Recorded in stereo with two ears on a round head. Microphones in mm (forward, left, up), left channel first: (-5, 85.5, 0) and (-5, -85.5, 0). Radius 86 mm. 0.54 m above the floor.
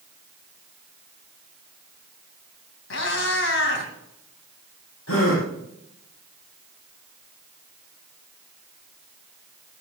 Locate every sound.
2.9 s a cat meowing: 75° left (ahead or behind), 2.5 m
5.1 s a gasp: 85° left, 4.5 m